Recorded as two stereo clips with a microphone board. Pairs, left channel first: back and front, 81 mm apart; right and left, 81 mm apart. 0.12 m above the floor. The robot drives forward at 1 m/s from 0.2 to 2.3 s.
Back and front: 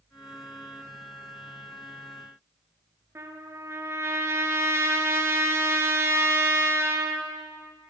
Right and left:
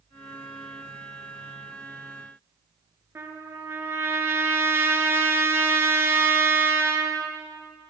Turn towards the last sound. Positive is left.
turn(degrees=45)